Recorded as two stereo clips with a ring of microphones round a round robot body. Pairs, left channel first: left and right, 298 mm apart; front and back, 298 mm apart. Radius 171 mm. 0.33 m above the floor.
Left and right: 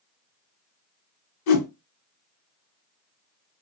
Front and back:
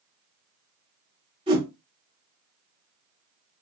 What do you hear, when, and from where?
1.5 s a whoosh: 105° left, 1.4 m